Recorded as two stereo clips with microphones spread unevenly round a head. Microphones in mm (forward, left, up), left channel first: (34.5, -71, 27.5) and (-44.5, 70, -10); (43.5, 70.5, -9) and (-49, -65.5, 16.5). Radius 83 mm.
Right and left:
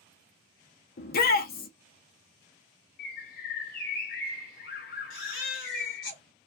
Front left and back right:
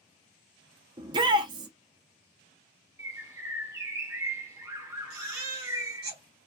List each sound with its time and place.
1.0 s a shout: 60° right, 0.6 m
3.0 s a bird: 55° right, 0.7 m
5.1 s a baby crying: 90° right, 1.2 m